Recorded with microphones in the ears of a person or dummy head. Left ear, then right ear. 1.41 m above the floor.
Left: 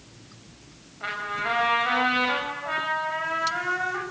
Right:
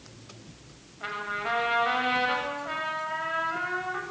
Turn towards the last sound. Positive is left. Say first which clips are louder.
# left 3 dB
turn(degrees=0)  # may be behind; listen again after turning